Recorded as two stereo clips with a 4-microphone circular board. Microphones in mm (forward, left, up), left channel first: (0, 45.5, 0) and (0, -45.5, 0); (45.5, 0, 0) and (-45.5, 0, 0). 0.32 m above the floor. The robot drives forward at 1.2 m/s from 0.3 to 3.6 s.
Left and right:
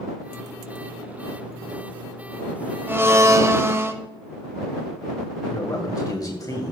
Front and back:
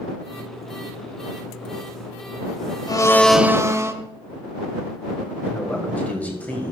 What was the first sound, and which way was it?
A blender, 30° right.